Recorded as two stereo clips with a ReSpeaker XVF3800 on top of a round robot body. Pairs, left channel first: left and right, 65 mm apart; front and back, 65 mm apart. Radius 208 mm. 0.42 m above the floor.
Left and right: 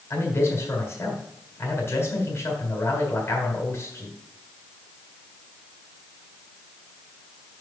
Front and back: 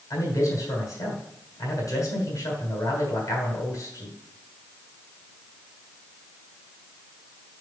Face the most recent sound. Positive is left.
turn(degrees=35)